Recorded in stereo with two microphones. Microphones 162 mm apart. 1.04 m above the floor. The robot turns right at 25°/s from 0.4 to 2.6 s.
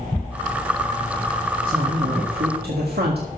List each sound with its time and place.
1.7 s a man speaking: 60° right (ahead or behind), 1.8 m; by 3.3 s 80° right, 1.8 m